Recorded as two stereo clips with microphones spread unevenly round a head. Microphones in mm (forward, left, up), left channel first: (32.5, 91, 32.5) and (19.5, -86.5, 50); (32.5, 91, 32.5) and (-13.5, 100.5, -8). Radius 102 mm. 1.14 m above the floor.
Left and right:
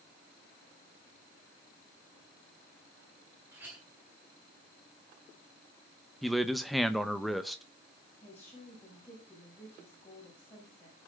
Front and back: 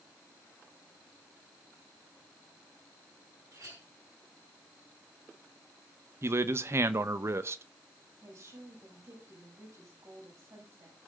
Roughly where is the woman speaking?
Behind.